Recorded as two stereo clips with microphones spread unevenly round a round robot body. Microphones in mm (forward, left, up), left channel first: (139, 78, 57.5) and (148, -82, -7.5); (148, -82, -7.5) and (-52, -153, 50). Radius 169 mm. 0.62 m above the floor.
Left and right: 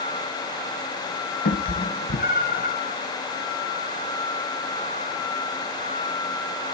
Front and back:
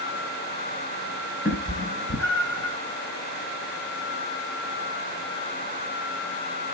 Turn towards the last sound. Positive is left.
turn(degrees=70)